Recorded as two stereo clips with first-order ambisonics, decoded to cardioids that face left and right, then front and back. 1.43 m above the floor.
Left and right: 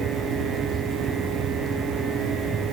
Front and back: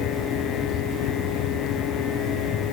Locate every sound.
Only background noise.